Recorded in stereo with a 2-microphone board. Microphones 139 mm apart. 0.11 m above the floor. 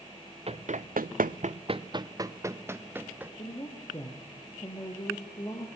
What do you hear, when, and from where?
0.5 s running footsteps: 45° right (ahead or behind), 0.8 m; by 3.3 s 10° right (ahead or behind), 2 m
3.4 s a woman speaking: 30° left (ahead or behind), 3 m